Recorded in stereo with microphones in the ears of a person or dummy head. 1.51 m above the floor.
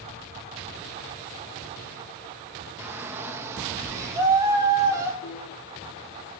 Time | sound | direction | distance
2.8 | a shout | 15° right (ahead or behind) | 2 m
5.2 | a piano | 80° left | 9.5 m